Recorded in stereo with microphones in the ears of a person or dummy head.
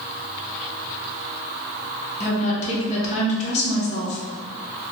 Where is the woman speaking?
40° left (ahead or behind), 0.9 m.